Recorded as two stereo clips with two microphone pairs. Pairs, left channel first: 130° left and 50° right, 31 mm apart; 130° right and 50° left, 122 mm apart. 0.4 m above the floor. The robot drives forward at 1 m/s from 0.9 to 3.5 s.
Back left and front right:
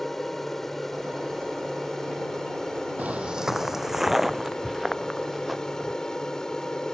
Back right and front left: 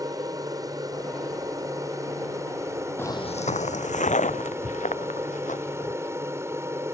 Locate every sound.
0.0 s an aircraft: 55° left; by 7.0 s 85° left
3.0 s footsteps: 55° right; by 6.0 s 140° right